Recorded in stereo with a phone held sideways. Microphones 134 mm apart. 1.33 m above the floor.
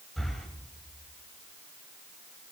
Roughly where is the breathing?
Centre.